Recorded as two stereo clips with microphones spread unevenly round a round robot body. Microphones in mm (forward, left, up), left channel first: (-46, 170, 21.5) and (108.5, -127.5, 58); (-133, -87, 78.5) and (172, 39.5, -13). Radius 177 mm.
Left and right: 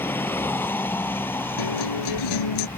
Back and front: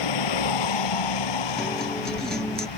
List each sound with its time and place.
0.0 s a vehicle: 160° right
1.6 s a guitar: 115° left